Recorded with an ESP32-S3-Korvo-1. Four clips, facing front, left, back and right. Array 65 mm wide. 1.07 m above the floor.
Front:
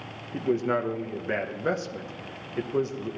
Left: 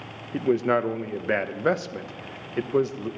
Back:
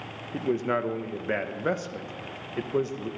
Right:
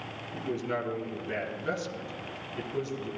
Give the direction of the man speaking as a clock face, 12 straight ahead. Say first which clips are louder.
Left 10 dB, front 1 dB; 9 o'clock.